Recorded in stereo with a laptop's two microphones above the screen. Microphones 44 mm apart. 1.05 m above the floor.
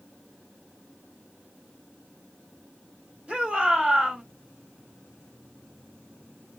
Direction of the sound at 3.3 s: 25° right (ahead or behind).